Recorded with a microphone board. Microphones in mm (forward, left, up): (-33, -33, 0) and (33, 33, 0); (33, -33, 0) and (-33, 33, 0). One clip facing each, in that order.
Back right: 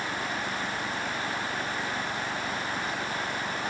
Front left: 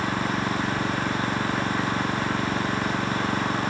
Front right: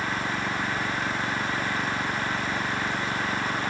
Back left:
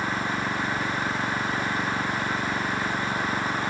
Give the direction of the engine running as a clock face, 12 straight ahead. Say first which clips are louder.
Front left 6 dB, back left 1 dB; 10 o'clock.